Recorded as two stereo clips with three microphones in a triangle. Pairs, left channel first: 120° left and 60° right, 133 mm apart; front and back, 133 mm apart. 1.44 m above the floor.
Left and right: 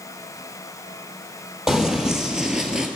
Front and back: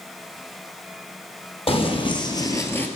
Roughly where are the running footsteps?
Ahead left.